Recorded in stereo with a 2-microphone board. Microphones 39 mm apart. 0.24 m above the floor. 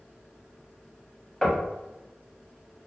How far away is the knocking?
About 0.8 m.